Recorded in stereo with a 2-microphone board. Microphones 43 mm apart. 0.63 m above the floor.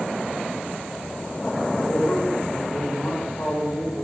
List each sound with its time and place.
1.7 s a man speaking: 60° left (ahead or behind), 6 m